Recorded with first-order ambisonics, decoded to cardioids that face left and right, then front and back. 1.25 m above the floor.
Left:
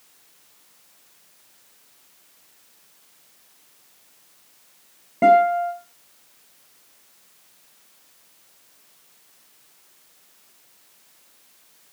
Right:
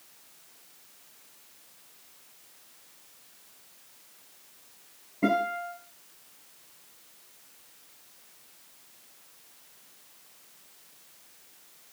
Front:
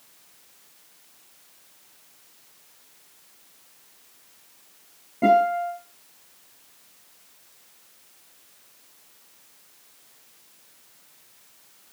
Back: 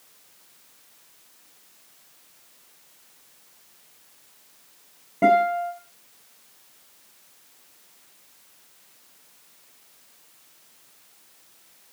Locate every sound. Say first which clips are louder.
5.2 s a guitar: left 13 dB, even; 110° left, 4.5 m